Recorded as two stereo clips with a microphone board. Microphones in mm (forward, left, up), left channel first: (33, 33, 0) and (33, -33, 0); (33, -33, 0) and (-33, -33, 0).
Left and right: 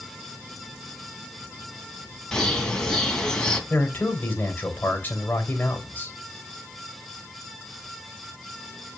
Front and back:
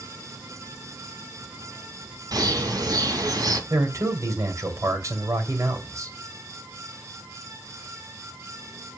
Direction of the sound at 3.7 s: 150° left.